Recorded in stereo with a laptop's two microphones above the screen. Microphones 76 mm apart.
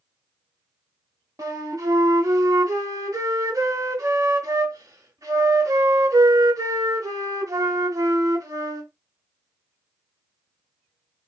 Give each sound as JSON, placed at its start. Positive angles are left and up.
{"t": 1.4, "sound": "a flute", "side_deg": -55, "distance_m": 1.1}